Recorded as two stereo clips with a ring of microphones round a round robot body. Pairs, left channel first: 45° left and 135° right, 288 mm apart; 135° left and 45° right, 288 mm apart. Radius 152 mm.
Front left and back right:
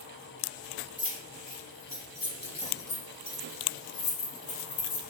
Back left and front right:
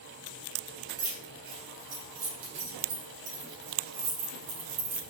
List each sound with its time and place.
1.0 s keys jangling: 40° right, 4.5 m; by 5.0 s 10° left, 3 m